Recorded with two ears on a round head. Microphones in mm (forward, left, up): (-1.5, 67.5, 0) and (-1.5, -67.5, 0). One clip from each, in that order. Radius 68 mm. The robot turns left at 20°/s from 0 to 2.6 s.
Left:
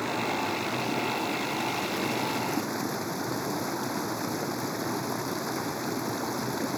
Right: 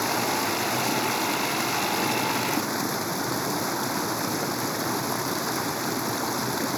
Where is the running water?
100° right; by 6.8 s 155° right.